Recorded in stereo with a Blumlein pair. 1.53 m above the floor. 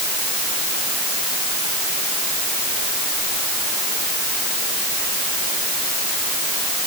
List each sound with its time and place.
Only background noise.